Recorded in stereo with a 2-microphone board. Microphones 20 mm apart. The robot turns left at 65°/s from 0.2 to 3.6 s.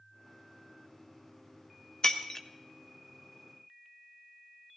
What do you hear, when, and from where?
2.0 s breaking glass: 30° left (ahead or behind), 1.0 m